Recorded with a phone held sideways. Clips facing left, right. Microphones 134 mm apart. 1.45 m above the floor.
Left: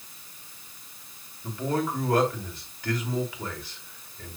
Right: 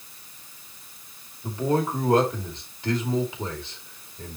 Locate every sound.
1.4 s a man speaking: 25° right (ahead or behind), 3 m